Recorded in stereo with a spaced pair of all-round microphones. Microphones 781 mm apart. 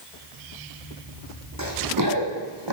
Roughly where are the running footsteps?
Right.